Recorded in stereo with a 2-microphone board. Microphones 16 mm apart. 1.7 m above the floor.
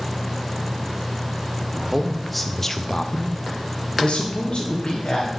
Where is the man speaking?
10° right (ahead or behind), 1.2 m; by 5.3 s 60° left (ahead or behind), 1.6 m.